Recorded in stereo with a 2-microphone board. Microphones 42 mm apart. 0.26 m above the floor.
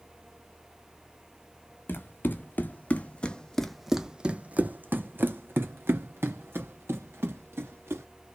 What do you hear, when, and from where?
1.9 s running footsteps: 55° left (ahead or behind), 1.2 m; by 8.1 s 80° right, 2.5 m